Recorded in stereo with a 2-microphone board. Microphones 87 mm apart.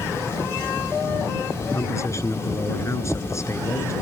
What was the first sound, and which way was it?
A man speaking, 35° left (ahead or behind).